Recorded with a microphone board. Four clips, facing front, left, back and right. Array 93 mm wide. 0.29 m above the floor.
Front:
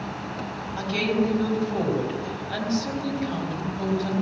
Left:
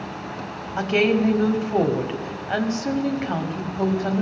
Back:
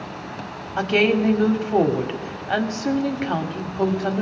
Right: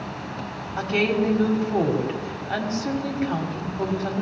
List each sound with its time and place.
0.8 s a woman speaking: 165° left, 1.4 m